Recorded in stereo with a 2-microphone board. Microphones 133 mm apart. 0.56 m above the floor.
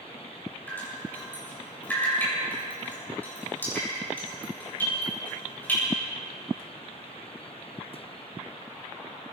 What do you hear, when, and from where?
0.7 s dripping: 15° left (ahead or behind), 7 m